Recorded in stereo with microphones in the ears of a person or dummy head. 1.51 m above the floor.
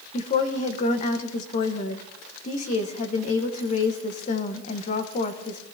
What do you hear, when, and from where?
0.1 s a woman speaking: 40° left (ahead or behind), 1.1 m